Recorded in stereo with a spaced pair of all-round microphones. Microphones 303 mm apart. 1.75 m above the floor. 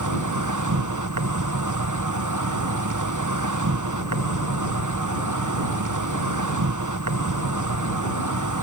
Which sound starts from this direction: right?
An insect, at 0.0 s.